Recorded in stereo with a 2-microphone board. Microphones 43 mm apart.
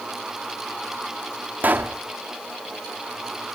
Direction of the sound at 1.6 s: 45° right (ahead or behind).